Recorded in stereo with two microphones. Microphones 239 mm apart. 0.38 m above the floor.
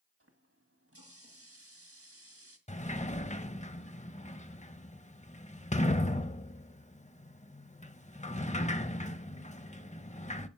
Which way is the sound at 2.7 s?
30° left (ahead or behind).